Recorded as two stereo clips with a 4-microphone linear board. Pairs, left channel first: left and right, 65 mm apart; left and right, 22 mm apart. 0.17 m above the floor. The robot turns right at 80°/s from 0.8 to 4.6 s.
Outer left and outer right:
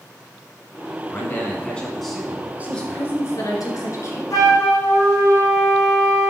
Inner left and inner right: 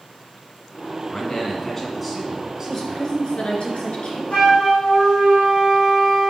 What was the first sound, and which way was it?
A man speaking, 100° left.